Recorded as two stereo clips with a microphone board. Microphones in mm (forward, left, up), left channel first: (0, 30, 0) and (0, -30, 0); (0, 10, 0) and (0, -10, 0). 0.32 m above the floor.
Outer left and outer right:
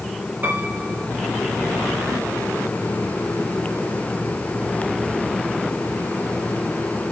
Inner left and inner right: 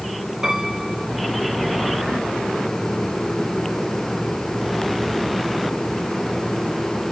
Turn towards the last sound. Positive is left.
turn(degrees=-30)  # may be behind; listen again after turning